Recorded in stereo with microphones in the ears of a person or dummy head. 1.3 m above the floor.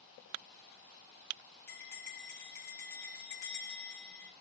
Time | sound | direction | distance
1.7 | a bell | 15° left (ahead or behind) | 1.0 m